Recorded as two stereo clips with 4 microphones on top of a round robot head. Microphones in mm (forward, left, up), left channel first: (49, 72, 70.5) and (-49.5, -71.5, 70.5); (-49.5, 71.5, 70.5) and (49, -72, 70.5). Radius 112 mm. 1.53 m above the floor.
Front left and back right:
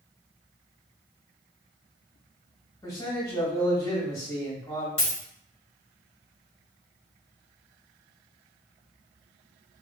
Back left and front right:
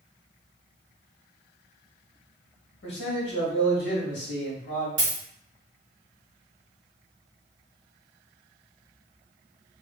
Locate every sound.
2.8 s a man speaking: 125° left, 1.1 m
5.0 s a dropped coin: 5° right, 1.0 m